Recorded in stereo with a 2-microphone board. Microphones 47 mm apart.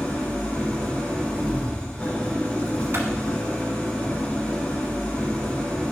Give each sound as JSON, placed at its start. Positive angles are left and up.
{"t": 0.0, "sound": "an engine running", "side_deg": 20, "distance_m": 1.9}
{"t": 2.9, "sound": "a clap", "side_deg": -60, "distance_m": 1.7}